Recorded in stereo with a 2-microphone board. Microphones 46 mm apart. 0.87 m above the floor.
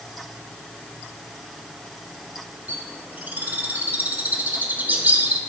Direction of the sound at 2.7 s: 45° right (ahead or behind).